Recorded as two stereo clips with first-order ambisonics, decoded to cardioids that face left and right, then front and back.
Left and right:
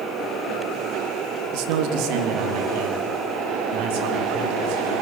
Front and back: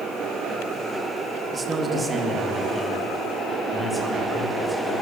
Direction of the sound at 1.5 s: 105° right.